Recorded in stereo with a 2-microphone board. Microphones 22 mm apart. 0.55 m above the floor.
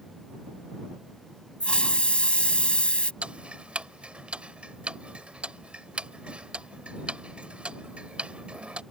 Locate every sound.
1.6 s a hiss: 55° left (ahead or behind)
3.2 s ticking: 65° right (ahead or behind)